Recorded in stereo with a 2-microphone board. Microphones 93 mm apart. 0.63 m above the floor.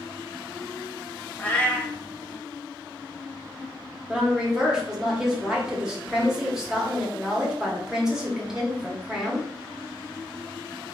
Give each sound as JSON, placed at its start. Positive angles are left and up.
{"t": 1.4, "sound": "a cat meowing", "side_deg": 20, "distance_m": 0.6}
{"t": 4.1, "sound": "a woman speaking", "side_deg": -10, "distance_m": 1.0}